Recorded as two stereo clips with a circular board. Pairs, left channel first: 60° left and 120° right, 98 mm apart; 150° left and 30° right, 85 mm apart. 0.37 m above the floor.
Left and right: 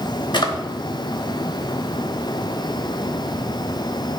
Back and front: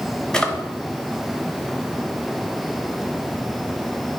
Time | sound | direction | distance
0.3 | a drawer | 75° left | 0.8 m